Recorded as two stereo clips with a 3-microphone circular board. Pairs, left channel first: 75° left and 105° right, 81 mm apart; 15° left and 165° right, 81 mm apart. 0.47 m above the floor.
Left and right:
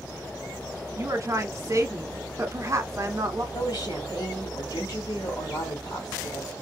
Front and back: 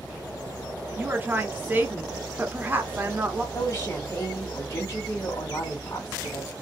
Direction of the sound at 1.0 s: 115° right.